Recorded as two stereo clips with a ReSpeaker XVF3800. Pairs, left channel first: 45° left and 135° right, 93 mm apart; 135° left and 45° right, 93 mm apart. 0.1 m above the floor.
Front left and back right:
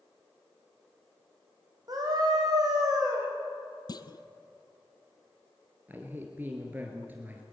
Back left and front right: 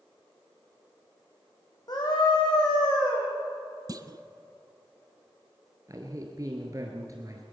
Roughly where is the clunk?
Ahead.